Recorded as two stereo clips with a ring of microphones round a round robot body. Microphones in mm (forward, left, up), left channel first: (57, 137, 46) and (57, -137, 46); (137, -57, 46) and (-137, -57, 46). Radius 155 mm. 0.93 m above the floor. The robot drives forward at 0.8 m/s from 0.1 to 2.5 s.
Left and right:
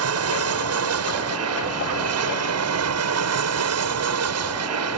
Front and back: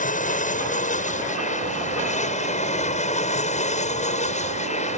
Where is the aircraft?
60° right; by 5.0 s 65° right.